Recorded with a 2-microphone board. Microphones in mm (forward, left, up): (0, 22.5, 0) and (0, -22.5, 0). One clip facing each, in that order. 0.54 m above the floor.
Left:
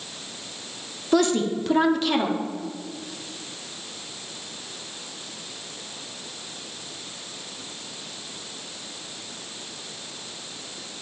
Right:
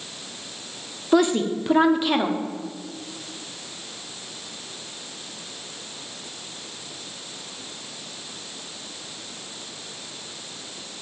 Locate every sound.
1.1 s a woman speaking: 15° right (ahead or behind), 0.7 m